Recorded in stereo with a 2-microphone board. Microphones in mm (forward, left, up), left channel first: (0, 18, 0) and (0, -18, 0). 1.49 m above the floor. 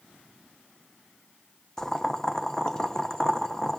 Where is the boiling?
15° left (ahead or behind), 0.7 m.